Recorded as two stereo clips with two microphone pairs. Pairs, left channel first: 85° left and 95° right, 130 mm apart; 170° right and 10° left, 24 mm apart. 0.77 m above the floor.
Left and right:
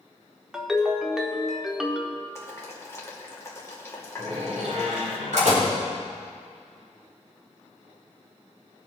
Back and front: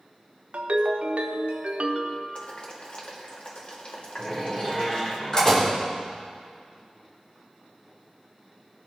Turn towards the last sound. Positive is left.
turn(degrees=-110)